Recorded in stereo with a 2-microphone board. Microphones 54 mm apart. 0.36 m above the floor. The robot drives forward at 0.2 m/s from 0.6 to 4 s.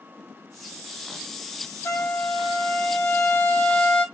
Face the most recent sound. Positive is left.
turn(degrees=35)  # may be behind; listen again after turning